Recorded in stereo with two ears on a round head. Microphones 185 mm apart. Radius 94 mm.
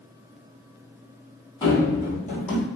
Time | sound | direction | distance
1.6 | running footsteps | 20° left (ahead or behind) | 1.5 m